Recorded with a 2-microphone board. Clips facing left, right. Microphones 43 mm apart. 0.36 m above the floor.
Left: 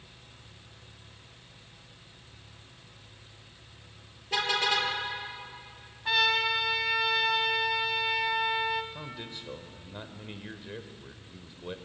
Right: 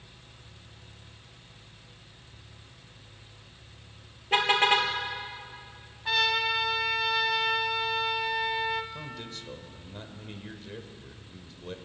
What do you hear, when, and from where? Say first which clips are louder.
4.3 s a car horn: right 5 dB; 35° right (ahead or behind), 3 m
6.0 s a trumpet: even; 5° left (ahead or behind), 2.0 m
8.9 s a man speaking: right 1 dB; 15° left (ahead or behind), 1.7 m